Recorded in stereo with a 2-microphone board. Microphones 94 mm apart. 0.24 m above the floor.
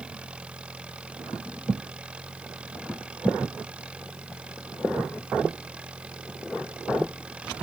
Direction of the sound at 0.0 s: 15° right (ahead or behind).